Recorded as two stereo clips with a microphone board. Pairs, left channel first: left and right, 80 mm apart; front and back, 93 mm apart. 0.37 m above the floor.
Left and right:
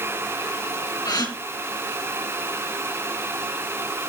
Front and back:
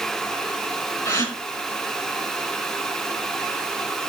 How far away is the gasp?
About 4 m.